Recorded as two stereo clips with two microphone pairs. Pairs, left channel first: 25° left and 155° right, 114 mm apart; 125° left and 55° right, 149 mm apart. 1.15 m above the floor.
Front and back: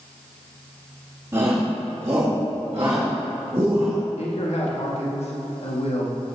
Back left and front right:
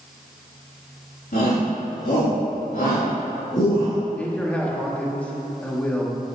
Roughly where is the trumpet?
I don't hear a trumpet.